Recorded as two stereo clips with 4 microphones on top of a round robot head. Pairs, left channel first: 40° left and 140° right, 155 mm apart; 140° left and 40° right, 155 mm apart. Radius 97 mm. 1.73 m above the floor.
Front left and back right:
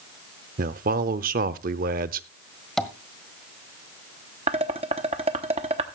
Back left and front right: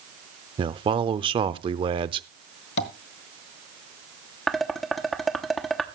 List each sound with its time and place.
0.6 s a man speaking: 100° right, 0.7 m
2.8 s tapping: 130° left, 1.4 m
4.5 s dishes clattering: 135° right, 0.8 m